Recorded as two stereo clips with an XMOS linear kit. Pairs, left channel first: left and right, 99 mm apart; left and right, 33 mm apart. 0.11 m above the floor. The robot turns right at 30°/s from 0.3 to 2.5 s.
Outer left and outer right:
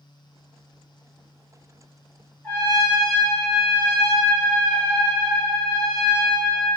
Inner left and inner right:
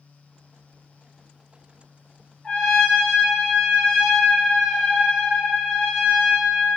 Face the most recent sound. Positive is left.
turn(degrees=25)  # may be behind; listen again after turning